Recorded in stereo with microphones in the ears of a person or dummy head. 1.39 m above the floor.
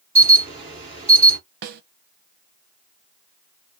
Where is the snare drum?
55° right (ahead or behind), 0.7 m.